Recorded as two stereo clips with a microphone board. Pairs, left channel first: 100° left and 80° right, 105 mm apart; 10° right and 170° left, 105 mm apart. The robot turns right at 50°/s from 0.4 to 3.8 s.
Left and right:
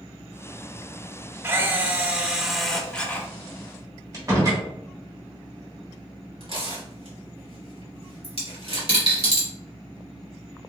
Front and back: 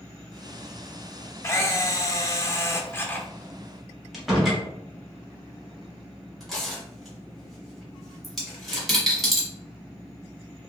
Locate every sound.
1.4 s a camera shutter: 45° right, 0.5 m; by 3.3 s 45° left, 0.5 m
4.1 s a door slam: 105° right, 1.0 m
6.4 s tearing paper: 100° right, 1.8 m
8.2 s a dropped coin: 100° right, 1.4 m